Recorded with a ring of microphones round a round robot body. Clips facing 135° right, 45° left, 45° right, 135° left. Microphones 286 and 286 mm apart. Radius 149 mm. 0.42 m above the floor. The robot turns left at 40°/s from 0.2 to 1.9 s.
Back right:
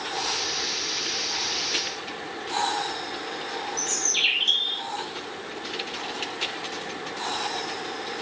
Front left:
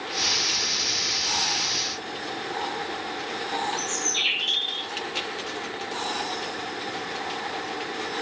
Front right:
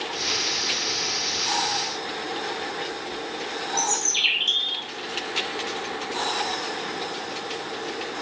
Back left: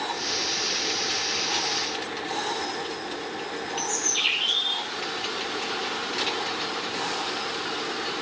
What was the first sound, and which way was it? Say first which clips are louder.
A bird: front left 2 dB, even; 70° right.